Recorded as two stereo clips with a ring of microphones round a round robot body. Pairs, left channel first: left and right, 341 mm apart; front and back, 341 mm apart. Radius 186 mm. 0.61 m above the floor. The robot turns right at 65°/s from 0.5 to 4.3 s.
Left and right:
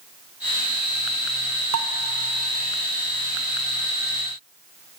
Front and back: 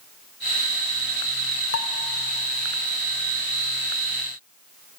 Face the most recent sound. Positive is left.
turn(degrees=115)